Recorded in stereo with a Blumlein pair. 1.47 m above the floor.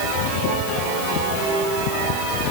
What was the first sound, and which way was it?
Only background noise.